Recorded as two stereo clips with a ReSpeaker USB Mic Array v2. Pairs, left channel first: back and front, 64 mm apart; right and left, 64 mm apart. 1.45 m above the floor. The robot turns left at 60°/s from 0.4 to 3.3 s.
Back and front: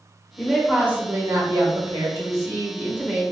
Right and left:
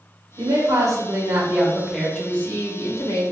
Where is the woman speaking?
95° left, 0.9 m; by 3.2 s 75° right, 0.9 m.